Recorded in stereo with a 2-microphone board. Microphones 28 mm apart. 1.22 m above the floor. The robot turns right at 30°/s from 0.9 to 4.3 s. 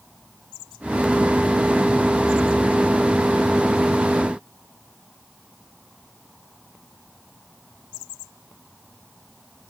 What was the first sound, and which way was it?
Only background noise.